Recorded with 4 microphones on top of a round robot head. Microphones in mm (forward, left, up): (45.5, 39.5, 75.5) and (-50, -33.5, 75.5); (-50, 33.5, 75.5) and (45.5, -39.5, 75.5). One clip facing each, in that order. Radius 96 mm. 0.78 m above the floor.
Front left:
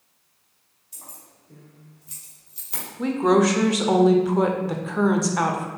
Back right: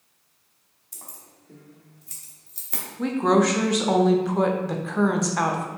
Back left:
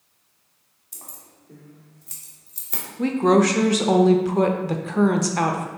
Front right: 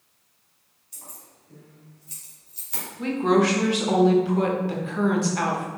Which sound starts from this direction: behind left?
A woman speaking, at 3.0 s.